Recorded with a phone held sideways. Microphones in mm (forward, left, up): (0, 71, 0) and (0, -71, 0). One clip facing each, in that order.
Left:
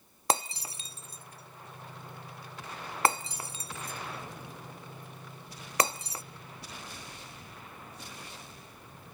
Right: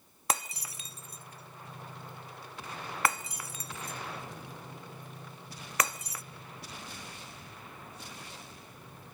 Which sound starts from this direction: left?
Breaking glass, at 0.3 s.